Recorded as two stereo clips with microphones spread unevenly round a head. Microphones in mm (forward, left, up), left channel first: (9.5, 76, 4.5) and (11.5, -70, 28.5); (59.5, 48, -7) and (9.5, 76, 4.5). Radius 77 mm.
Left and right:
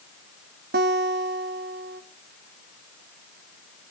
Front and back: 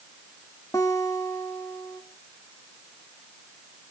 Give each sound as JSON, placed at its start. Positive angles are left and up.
{"t": 0.7, "sound": "a guitar", "azimuth_deg": -95, "distance_m": 1.4}